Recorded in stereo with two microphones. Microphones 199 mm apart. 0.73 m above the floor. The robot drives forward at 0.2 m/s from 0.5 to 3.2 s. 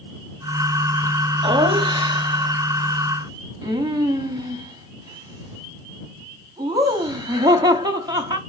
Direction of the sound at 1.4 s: 25° right (ahead or behind).